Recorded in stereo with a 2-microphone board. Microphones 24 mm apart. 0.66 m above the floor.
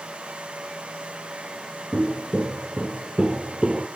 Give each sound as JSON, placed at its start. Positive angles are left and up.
{"t": 1.9, "sound": "footsteps", "side_deg": -50, "distance_m": 1.4}